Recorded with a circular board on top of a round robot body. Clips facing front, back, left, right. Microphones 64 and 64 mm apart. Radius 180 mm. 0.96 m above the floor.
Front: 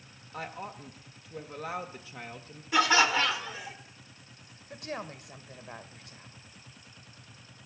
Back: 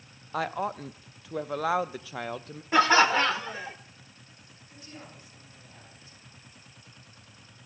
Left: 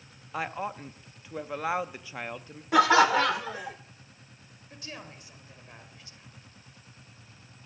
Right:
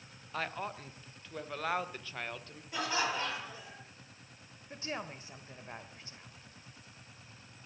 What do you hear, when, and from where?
0.3 s a woman speaking: 165° left, 0.6 m
2.7 s laughter: 120° left, 0.7 m
4.7 s a woman speaking: 30° right, 1.5 m